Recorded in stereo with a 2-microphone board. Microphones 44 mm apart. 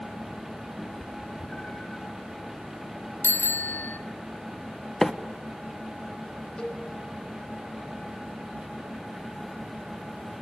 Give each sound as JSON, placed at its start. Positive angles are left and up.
{"t": 0.8, "sound": "a cat meowing", "side_deg": 10, "distance_m": 8.5}
{"t": 3.2, "sound": "a bicycle bell", "side_deg": 70, "distance_m": 2.0}
{"t": 5.0, "sound": "a microwave", "side_deg": 10, "distance_m": 0.9}
{"t": 6.6, "sound": "a cowbell", "side_deg": 20, "distance_m": 4.5}